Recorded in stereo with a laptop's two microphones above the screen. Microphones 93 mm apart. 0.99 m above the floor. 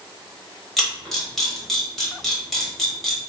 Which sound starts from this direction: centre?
A camera shutter, at 0.8 s.